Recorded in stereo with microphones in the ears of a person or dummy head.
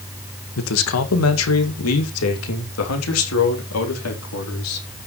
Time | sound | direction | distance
0.6 | a man speaking | 75° left (ahead or behind) | 1.8 m